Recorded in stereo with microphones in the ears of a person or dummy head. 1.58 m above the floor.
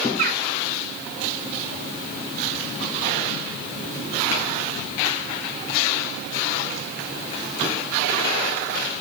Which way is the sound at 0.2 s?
50° right (ahead or behind).